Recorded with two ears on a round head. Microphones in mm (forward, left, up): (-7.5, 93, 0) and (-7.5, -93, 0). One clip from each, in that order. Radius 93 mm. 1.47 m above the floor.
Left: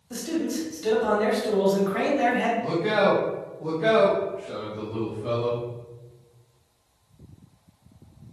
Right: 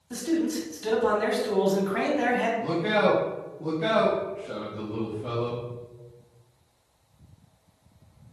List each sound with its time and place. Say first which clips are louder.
0.1 s a man speaking: right 1 dB; centre (ahead or behind), 1.3 m
2.6 s a man speaking: left 2 dB; 15° right (ahead or behind), 1.8 m